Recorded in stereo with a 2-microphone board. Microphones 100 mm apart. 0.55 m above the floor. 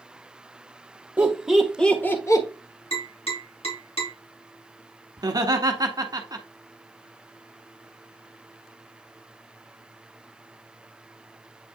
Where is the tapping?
75° left (ahead or behind), 3.5 m.